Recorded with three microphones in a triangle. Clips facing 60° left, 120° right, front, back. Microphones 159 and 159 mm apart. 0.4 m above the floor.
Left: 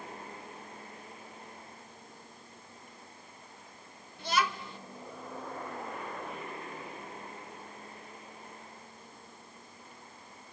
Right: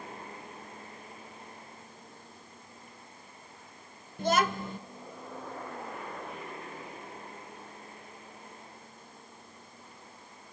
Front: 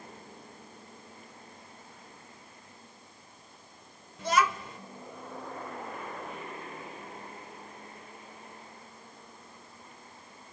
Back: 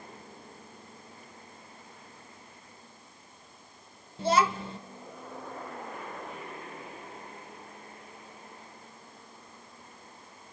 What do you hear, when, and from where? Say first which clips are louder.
4.2 s a child speaking: right 4 dB, back 2 dB; 130° right, 0.6 m